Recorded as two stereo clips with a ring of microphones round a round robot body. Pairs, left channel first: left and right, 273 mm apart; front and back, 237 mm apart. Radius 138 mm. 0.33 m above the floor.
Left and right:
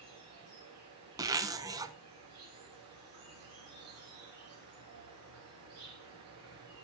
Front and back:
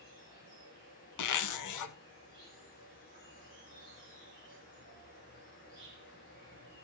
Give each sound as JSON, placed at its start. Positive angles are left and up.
{"t": 0.0, "sound": "an insect", "azimuth_deg": -55, "distance_m": 7.0}
{"t": 1.2, "sound": "a zipper", "azimuth_deg": -10, "distance_m": 0.8}